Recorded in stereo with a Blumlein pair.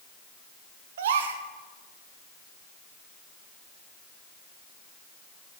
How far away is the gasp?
About 0.7 m.